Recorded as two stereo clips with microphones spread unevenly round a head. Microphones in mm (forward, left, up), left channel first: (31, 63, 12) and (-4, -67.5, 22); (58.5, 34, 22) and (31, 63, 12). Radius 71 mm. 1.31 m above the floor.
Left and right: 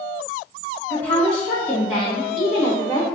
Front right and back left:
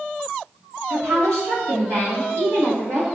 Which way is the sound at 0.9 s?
150° left.